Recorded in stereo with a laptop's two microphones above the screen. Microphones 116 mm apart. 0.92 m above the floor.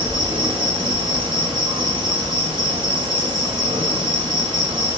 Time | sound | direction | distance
0.0 | an insect | 40° right (ahead or behind) | 0.9 m